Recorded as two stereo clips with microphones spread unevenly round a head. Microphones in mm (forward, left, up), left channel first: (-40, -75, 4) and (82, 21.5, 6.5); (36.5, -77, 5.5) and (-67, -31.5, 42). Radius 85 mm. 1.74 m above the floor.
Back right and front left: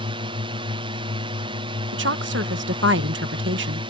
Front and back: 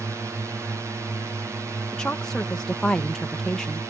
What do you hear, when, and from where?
0.0 s a drone: 80° left
1.9 s a woman speaking: 65° left